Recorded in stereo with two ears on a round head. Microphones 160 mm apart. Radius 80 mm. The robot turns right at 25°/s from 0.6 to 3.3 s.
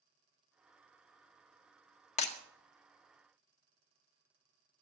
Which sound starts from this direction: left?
Breaking glass, at 2.2 s.